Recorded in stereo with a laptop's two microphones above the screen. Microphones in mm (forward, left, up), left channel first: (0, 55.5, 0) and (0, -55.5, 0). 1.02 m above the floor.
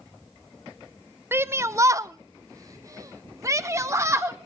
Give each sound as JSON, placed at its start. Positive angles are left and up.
{"t": 1.3, "sound": "a shout", "side_deg": -20, "distance_m": 0.7}